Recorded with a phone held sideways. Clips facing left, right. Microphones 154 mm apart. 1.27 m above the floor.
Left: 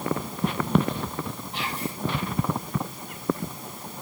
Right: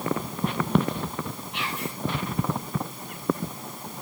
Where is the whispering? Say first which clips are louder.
Left 1 dB; 35° left (ahead or behind), 8 m.